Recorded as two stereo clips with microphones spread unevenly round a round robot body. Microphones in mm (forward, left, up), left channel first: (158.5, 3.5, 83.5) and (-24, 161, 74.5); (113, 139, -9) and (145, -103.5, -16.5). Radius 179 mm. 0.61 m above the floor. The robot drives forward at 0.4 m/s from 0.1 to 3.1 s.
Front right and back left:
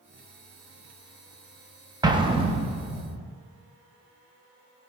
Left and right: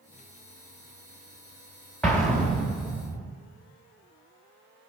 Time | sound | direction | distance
2.0 | an explosion | straight behind | 0.8 m